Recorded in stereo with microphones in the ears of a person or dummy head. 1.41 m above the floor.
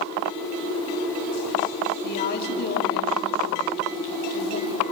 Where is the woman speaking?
55° left (ahead or behind), 2.5 m.